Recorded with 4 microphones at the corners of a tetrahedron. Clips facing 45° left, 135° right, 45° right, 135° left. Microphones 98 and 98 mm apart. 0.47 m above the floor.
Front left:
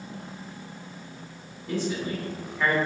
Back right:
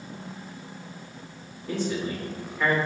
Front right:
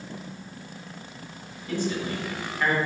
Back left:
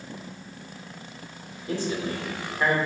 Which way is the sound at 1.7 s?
135° left.